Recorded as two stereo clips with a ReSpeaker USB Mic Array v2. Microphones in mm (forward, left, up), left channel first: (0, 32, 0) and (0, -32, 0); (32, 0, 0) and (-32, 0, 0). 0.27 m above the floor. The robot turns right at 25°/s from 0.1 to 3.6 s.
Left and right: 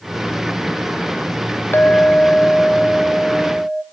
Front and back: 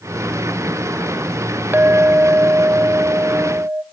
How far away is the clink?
About 0.7 m.